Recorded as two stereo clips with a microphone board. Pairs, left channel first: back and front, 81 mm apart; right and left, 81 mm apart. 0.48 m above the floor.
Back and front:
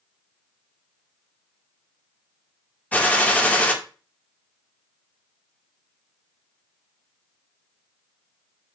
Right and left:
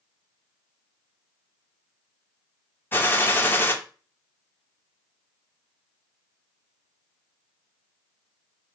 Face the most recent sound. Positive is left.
turn(degrees=-125)